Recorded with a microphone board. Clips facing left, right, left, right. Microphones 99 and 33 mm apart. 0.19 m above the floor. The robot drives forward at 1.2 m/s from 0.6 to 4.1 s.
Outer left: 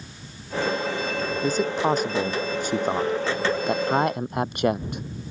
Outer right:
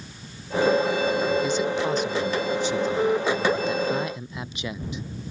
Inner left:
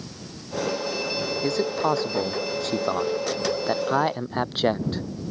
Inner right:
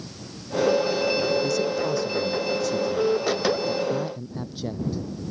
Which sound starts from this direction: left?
A man speaking, at 1.4 s.